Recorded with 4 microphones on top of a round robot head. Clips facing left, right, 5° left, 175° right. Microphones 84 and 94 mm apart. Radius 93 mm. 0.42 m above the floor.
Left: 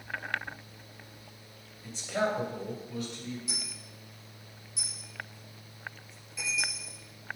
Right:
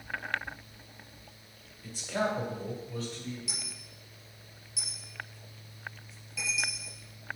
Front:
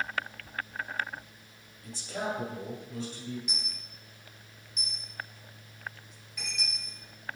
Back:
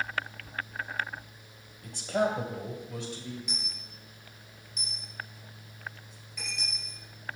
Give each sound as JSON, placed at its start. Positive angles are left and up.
{"t": 1.8, "sound": "a man speaking", "azimuth_deg": 180, "distance_m": 1.5}
{"t": 3.5, "sound": "a dropped coin", "azimuth_deg": -80, "distance_m": 3.5}